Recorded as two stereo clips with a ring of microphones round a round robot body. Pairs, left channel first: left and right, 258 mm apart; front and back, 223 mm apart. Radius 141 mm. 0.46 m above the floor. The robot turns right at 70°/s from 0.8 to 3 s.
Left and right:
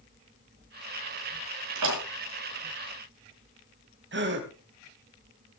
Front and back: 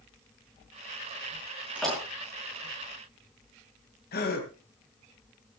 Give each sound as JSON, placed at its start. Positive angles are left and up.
{"t": 1.8, "sound": "a door slam", "azimuth_deg": -95, "distance_m": 6.0}
{"t": 4.1, "sound": "a gasp", "azimuth_deg": -45, "distance_m": 3.0}